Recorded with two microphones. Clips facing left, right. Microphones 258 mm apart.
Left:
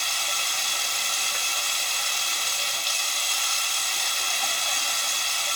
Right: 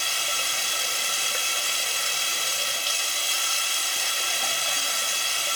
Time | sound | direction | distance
0.0 | running water | 30° right (ahead or behind) | 0.7 m